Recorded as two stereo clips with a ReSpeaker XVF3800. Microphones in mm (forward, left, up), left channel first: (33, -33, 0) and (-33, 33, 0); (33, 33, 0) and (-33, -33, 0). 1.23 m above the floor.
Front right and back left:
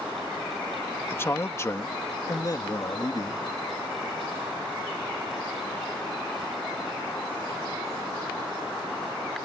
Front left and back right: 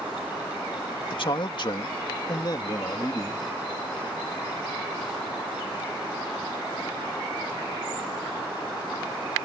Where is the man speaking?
20° left; by 3.5 s 5° right.